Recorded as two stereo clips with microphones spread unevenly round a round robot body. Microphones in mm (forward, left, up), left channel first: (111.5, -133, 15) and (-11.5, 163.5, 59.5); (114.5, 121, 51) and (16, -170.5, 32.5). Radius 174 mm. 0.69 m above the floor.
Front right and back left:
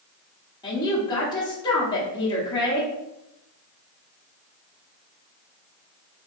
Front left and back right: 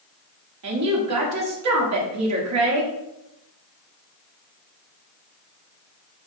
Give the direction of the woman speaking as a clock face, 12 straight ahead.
5 o'clock.